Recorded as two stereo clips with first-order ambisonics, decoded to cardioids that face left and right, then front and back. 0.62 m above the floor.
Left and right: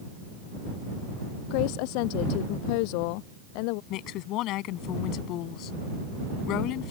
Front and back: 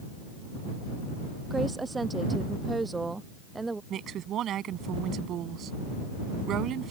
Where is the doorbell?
I don't hear a doorbell.